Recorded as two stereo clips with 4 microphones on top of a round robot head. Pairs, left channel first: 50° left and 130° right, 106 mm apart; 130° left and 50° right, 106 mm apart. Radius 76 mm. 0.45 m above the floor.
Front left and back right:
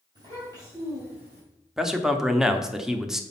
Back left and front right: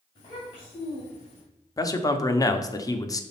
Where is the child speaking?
Straight behind, 2.5 m; by 1.4 s 165° left, 3 m.